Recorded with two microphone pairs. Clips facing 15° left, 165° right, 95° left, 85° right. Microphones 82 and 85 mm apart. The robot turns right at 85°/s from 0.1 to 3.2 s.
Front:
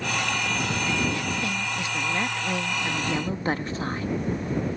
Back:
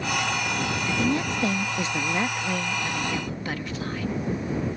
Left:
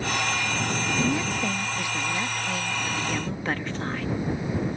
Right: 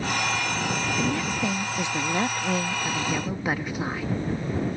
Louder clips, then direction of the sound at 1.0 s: Back 3 dB, left 2 dB; 155° left.